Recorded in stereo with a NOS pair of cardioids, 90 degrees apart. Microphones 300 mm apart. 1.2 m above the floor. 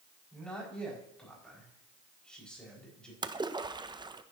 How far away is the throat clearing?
I don't hear throat clearing.